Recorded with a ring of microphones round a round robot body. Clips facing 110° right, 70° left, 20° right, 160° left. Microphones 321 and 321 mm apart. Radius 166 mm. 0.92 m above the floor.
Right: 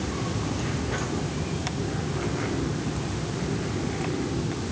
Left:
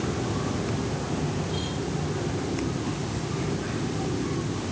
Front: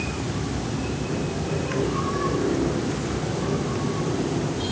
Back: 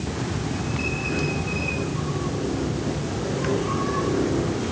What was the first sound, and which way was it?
Only background noise.